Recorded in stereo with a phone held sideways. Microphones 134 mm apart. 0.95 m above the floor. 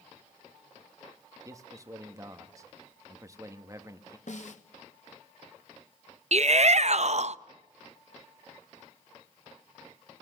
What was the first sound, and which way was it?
A man speaking, 25° right (ahead or behind).